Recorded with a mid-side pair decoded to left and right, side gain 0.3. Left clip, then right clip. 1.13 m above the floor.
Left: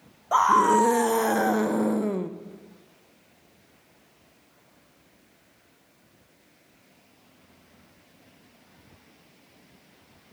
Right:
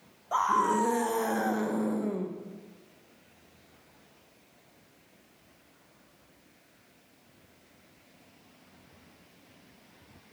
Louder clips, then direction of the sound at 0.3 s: Left 7 dB; 60° left.